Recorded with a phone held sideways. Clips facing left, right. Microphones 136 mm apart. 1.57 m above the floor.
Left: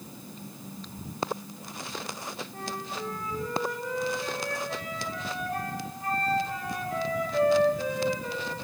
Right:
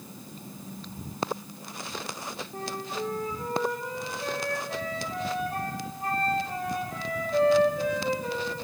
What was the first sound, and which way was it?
A flute, 30° right (ahead or behind).